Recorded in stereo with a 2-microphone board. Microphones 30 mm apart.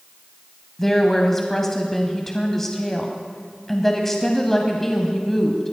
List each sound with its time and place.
0.8 s a woman speaking: 10° left (ahead or behind), 1.1 m